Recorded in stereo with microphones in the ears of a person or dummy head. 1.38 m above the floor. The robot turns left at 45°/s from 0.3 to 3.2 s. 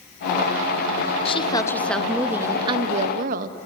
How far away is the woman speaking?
About 2 m.